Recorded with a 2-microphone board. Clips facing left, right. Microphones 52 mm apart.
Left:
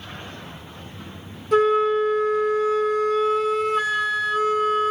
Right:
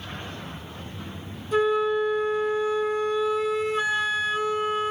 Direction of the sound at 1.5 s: 75° left (ahead or behind).